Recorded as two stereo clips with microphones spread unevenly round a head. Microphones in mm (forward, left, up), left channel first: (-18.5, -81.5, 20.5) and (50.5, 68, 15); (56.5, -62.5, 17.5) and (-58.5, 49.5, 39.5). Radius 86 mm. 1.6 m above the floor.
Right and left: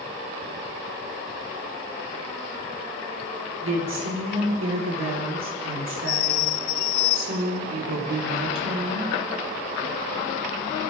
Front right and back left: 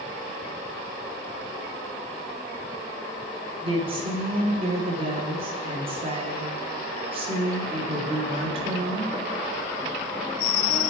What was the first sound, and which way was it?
A woman speaking, 80° left.